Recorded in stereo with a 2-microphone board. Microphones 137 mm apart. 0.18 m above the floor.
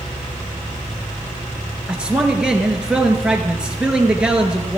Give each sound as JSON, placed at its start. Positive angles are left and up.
{"t": 1.9, "sound": "a man speaking", "side_deg": -5, "distance_m": 2.5}